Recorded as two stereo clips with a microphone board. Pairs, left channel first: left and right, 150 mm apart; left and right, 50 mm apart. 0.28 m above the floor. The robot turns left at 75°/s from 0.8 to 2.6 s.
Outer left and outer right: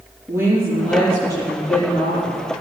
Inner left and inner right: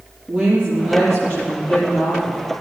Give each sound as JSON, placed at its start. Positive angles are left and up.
{"t": 0.3, "sound": "a woman speaking", "azimuth_deg": -165, "distance_m": 7.5}